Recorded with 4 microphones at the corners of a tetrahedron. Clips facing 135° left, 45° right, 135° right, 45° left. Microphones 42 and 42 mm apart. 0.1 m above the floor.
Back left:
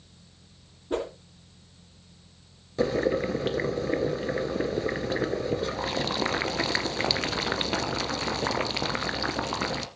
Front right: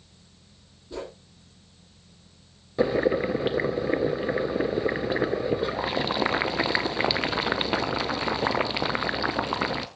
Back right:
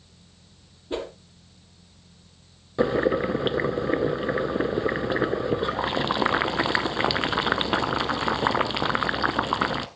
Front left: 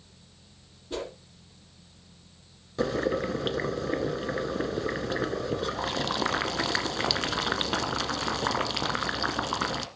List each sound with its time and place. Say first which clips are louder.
0.9 s a whoosh: back left 6 dB, back right 4 dB; 170° left, 3.5 m
2.8 s boiling: front right 2 dB, back right 5 dB; 105° right, 1.0 m